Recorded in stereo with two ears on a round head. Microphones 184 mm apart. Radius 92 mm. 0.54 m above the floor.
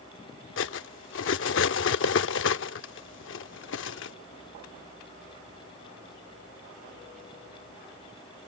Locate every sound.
0.6 s cutlery clinking: 65° left (ahead or behind)